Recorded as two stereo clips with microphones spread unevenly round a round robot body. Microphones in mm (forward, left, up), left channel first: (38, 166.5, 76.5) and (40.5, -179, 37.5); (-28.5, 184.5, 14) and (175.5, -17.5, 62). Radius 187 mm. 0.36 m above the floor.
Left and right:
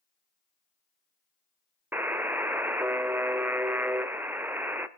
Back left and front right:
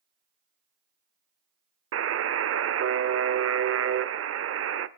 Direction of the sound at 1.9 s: 10° right.